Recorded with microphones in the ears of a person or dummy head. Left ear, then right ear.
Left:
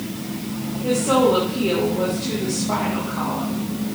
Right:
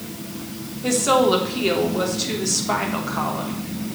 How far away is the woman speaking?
About 3 m.